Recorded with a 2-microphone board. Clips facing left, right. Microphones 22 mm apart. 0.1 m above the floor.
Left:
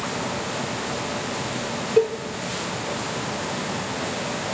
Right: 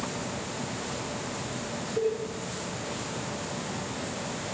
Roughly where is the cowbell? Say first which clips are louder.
Left 8 dB; left.